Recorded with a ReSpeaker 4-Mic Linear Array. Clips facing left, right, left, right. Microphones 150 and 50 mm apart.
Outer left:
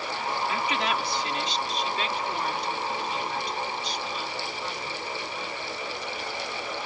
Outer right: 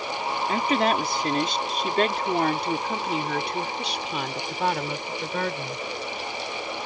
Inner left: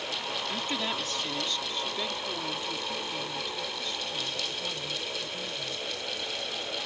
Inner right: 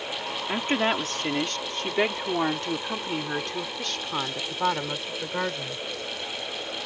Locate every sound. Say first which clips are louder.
0.5 s a woman speaking: outer right 8 dB, inner right 10 dB; 45° right (ahead or behind); by 5.8 s 85° right